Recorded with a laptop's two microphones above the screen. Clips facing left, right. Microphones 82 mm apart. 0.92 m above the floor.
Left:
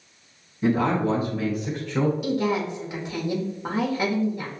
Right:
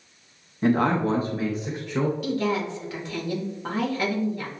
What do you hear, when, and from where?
0.6 s a man speaking: 55° right (ahead or behind), 1.0 m; by 2.1 s 5° right (ahead or behind), 1.0 m
2.2 s a woman speaking: 15° left (ahead or behind), 1.4 m